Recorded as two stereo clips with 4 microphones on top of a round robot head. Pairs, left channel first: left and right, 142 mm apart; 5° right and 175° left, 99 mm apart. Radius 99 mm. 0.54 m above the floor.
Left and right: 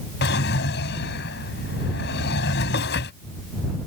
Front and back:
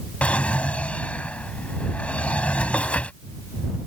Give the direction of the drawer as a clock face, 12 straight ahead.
10 o'clock.